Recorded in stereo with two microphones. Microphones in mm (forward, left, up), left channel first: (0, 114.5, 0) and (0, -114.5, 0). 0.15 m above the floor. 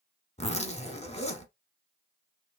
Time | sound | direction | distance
0.4 | a zipper | 30° left (ahead or behind) | 0.8 m